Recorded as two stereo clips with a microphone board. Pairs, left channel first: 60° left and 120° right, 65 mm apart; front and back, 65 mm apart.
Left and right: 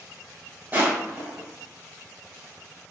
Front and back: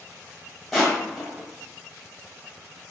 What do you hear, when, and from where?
0.7 s crushing: 90° right, 1.1 m